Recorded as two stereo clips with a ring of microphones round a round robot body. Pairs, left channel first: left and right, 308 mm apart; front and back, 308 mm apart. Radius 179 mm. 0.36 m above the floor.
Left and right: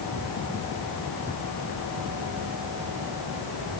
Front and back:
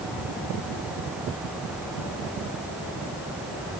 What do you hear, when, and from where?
Only background noise.